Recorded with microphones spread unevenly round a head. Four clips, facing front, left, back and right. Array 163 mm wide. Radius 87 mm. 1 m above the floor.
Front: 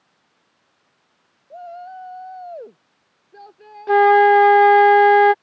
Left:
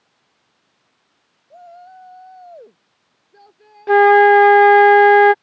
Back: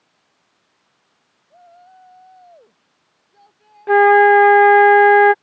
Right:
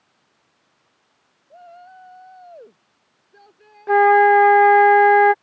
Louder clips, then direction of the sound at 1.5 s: Left 3 dB, front 12 dB; 5° right.